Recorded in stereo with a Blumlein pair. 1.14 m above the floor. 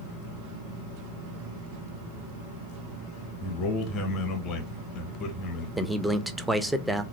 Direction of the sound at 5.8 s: Straight ahead.